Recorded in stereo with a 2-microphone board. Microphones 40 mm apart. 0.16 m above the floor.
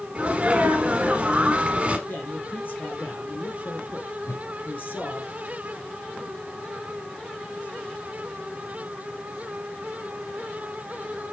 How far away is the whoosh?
About 3.5 m.